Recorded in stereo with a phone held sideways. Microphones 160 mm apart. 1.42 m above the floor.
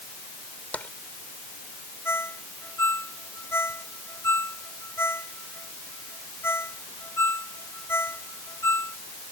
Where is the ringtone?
15° left (ahead or behind).